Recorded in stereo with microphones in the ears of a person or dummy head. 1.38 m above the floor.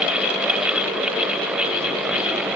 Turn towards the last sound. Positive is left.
No sound to turn to.